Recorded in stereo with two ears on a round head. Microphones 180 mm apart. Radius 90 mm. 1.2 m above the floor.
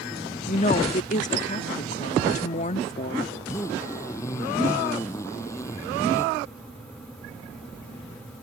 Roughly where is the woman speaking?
Left.